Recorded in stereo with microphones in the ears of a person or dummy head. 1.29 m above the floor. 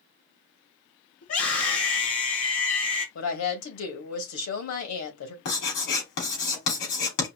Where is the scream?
80° left, 3 m.